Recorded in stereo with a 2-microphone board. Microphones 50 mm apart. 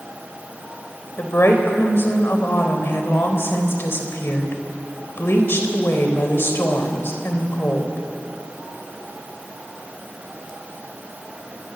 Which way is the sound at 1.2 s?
55° left (ahead or behind).